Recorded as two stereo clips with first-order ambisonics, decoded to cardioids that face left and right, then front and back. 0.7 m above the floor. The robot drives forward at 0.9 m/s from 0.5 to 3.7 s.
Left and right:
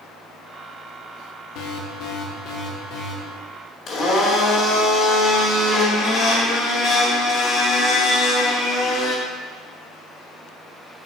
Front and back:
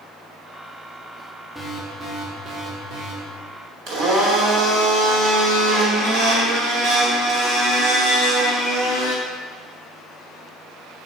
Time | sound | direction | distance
1.6 | an alarm | 90° left | 1.0 m
3.9 | a blender | 150° left | 1.6 m